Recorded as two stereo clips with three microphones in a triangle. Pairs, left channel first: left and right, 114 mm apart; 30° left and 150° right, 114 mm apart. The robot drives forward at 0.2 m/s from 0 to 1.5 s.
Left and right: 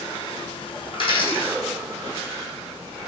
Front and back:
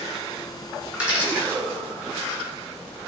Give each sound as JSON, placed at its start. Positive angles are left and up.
{"t": 0.9, "sound": "a dropped coin", "azimuth_deg": 130, "distance_m": 1.2}